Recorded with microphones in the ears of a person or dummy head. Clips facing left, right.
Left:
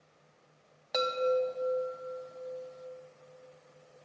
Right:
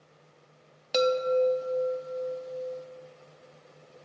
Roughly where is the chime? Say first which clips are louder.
Right 5 dB; right.